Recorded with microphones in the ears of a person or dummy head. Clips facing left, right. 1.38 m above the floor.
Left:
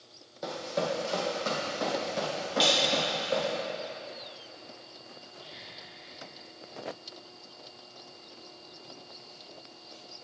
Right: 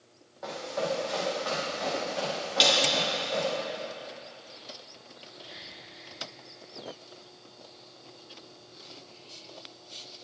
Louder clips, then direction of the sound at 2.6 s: Right 1 dB; 30° right (ahead or behind).